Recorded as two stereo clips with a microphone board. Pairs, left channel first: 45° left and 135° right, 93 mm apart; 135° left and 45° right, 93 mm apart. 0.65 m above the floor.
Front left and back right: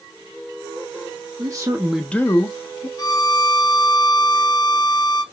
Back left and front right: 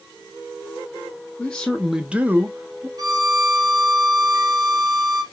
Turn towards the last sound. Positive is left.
turn(degrees=0)